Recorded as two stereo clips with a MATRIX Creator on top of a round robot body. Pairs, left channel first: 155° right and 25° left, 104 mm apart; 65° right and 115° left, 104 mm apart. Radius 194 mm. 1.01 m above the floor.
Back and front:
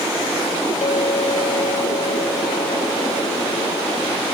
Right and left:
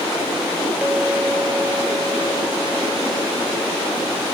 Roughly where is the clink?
Behind.